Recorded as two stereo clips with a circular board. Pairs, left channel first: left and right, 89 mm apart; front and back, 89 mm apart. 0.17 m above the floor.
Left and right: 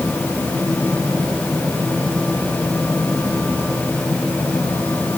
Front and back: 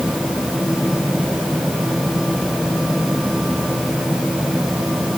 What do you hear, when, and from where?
Only background noise.